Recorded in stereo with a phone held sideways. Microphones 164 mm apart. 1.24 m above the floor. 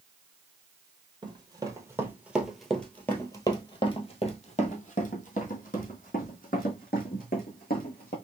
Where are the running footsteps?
25° right (ahead or behind), 1.5 m; by 8.2 s 60° left (ahead or behind), 3.5 m.